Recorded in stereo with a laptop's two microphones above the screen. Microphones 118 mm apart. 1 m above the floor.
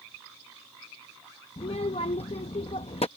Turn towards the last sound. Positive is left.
turn(degrees=60)  # may be behind; listen again after turning